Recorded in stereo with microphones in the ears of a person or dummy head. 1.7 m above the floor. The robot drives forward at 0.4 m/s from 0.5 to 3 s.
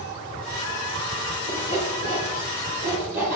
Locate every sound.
1.5 s sawing: 35° left (ahead or behind), 9 m; by 3.4 s 30° left (ahead or behind), 9.5 m